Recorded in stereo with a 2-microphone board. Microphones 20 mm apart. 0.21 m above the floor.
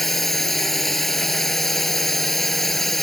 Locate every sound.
0.0 s a drone: 10° left (ahead or behind)